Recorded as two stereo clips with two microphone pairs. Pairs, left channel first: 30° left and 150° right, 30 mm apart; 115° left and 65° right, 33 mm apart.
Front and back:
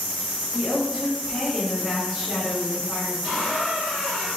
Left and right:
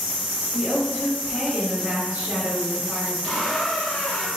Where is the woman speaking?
95° right, 1.5 m.